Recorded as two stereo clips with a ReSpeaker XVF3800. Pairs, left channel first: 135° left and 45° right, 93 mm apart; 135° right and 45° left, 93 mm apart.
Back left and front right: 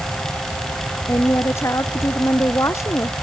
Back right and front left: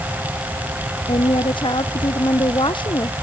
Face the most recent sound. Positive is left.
turn(degrees=-165)